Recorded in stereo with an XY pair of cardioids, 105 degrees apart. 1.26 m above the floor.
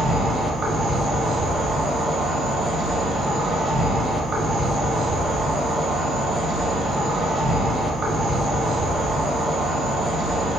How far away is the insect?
About 1.1 m.